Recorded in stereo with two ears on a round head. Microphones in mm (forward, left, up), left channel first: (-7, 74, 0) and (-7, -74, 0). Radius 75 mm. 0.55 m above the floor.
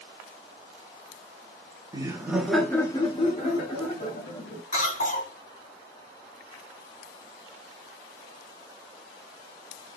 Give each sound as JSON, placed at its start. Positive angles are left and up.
{"t": 1.9, "sound": "laughter", "side_deg": -25, "distance_m": 0.7}
{"t": 4.7, "sound": "a cough", "side_deg": 45, "distance_m": 2.0}